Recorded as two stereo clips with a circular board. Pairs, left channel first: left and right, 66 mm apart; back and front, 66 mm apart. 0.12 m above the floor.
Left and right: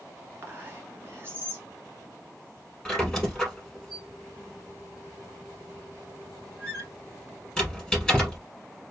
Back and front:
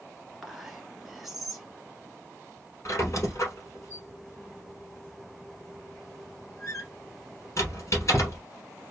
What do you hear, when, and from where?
0.4 s whispering: 85° right, 1.3 m
2.9 s a squeak: 170° left, 1.5 m